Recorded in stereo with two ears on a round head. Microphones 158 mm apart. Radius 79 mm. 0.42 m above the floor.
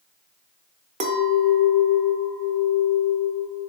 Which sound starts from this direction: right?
A clink, at 1.0 s.